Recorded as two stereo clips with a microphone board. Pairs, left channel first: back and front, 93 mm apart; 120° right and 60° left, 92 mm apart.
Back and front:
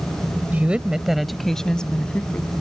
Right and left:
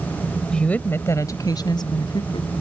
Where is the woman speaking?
50° right; by 2.5 s 105° right.